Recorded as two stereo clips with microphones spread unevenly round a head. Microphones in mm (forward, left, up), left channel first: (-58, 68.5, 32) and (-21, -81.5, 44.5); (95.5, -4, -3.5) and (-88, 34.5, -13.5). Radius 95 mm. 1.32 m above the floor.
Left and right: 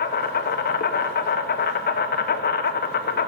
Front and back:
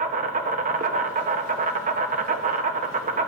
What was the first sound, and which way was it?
An insect, 120° left.